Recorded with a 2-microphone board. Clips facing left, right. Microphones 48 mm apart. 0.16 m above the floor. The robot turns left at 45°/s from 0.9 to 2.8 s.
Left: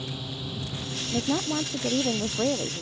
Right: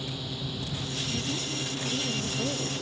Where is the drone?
5° left (ahead or behind); by 2.8 s 75° right (ahead or behind).